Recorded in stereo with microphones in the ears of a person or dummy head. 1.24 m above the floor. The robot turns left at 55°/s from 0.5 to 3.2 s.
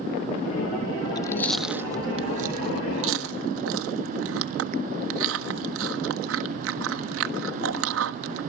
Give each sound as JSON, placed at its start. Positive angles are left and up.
{"t": 1.1, "sound": "chewing", "side_deg": 25, "distance_m": 1.3}